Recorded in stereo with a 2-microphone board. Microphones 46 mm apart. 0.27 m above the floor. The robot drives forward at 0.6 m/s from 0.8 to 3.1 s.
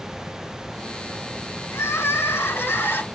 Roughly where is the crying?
Left.